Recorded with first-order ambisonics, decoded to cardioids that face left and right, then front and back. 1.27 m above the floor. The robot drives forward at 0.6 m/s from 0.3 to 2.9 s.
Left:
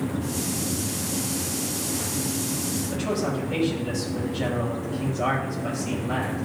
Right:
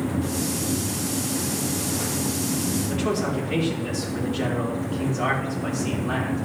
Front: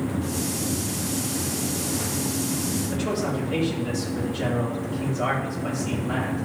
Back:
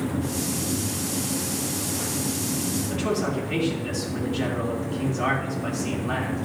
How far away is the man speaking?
About 4 m.